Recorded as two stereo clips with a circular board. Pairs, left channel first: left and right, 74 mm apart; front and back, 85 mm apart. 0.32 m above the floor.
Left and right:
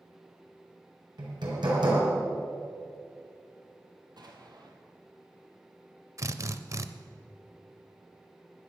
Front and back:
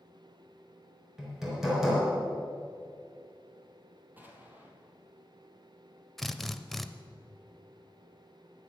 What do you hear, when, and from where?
1.2 s hammering: 95° right, 4 m
4.2 s an explosion: 110° right, 1.7 m
6.2 s a drill: 85° right, 0.5 m